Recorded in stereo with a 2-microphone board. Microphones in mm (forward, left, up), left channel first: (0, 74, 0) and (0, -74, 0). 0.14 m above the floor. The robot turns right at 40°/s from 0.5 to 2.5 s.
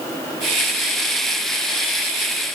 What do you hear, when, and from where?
Only background noise.